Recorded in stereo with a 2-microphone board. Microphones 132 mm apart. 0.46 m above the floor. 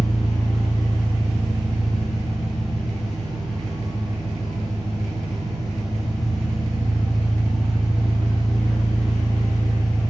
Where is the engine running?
40° right (ahead or behind), 1.1 m.